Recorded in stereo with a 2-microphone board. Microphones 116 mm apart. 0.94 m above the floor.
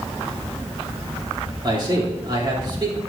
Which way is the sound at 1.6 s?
40° right (ahead or behind).